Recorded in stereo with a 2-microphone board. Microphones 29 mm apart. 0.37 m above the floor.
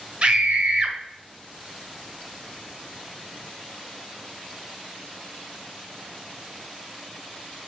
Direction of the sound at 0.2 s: 40° right (ahead or behind).